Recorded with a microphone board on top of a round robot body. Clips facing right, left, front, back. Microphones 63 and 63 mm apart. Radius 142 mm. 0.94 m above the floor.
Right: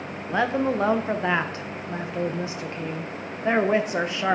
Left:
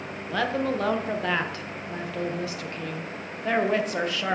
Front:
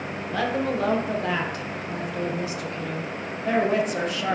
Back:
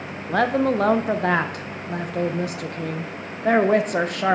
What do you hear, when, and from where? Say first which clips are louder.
0.3 s a woman speaking: right 3 dB, back 6 dB; 155° right, 0.6 m